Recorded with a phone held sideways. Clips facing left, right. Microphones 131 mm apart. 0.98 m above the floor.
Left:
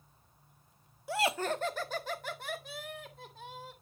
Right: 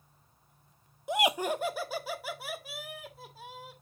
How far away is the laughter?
About 0.5 m.